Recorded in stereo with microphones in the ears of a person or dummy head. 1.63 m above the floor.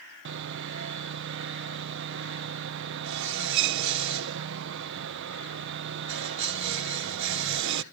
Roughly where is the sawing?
Right.